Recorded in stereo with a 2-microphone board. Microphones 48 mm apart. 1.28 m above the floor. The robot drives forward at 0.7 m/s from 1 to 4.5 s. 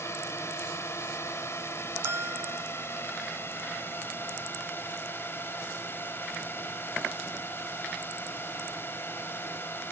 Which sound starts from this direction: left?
A drone, at 0.0 s.